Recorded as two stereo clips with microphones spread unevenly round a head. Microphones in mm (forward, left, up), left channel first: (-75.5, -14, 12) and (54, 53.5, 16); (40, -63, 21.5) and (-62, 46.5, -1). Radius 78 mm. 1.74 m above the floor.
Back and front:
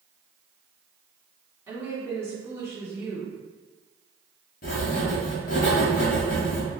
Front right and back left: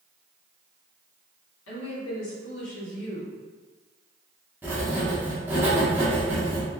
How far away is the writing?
About 1.1 m.